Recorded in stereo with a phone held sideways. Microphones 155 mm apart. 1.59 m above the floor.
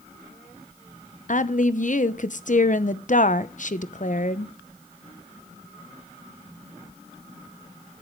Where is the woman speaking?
55° left (ahead or behind), 0.8 m.